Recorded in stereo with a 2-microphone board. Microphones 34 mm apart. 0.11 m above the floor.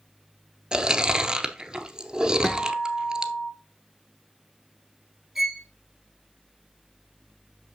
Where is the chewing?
25° right (ahead or behind), 0.8 m.